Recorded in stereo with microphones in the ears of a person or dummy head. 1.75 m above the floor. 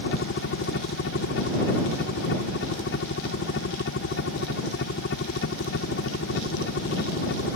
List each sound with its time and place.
0.0 s a helicopter: 60° left (ahead or behind)